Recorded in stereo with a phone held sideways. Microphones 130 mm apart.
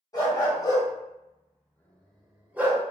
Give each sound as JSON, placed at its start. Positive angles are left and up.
{"t": 0.1, "sound": "a dog barking", "side_deg": 30, "distance_m": 1.3}